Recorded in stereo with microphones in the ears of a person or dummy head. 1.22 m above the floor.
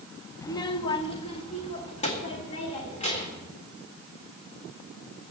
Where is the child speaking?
25° left (ahead or behind), 0.6 m; by 3.5 s 40° left (ahead or behind), 3.5 m.